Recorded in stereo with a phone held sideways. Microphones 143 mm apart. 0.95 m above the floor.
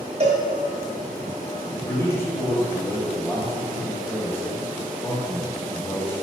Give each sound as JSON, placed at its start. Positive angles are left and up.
{"t": 0.2, "sound": "a cowbell", "side_deg": -45, "distance_m": 1.8}
{"t": 1.9, "sound": "a man speaking", "side_deg": 15, "distance_m": 2.0}